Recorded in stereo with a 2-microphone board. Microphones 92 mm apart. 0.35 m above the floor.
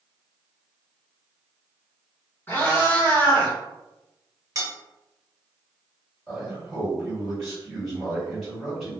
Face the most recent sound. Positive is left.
turn(degrees=0)  # may be behind; listen again after turning